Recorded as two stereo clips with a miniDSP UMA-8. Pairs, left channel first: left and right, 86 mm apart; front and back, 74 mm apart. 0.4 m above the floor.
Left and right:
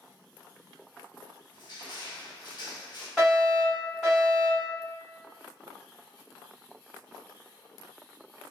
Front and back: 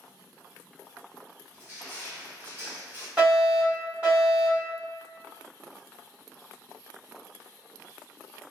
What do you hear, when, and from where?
1.5 s crushing: 120° left, 0.9 m
3.2 s a fire alarm: 170° left, 1.7 m